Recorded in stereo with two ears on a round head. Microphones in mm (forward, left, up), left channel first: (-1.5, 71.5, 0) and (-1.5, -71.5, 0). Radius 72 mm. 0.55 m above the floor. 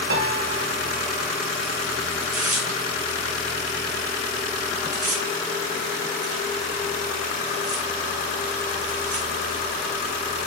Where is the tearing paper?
50° right (ahead or behind), 2.5 m.